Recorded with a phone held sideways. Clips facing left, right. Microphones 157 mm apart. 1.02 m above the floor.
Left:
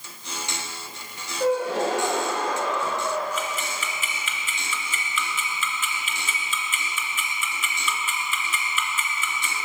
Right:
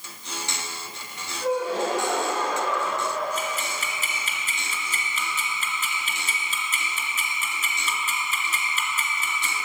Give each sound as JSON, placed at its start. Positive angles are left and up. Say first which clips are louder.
{"t": 1.4, "sound": "a gasp", "louder": "left 2 dB", "side_deg": 75, "distance_m": 6.0}
{"t": 3.4, "sound": "ticking", "louder": "even", "side_deg": -40, "distance_m": 2.0}